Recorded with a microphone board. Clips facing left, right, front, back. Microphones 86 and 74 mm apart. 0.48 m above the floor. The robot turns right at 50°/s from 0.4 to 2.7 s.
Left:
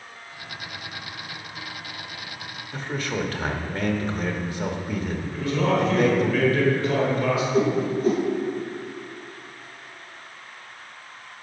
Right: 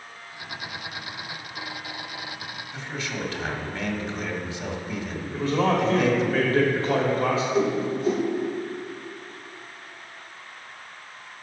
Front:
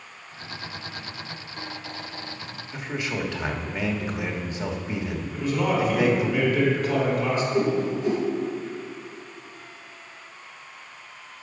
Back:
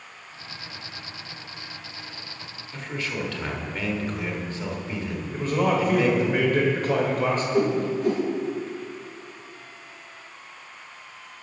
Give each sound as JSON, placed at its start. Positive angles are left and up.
{"t": 2.7, "sound": "a man speaking", "azimuth_deg": 65, "distance_m": 1.2}
{"t": 5.3, "sound": "a man speaking", "azimuth_deg": -140, "distance_m": 1.6}
{"t": 7.5, "sound": "a whoosh", "azimuth_deg": 135, "distance_m": 2.5}